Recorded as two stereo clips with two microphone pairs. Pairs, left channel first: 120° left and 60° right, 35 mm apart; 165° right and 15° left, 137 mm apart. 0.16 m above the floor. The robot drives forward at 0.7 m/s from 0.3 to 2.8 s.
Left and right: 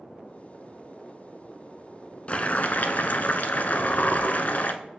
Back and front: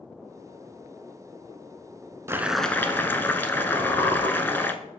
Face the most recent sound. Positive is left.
turn(degrees=140)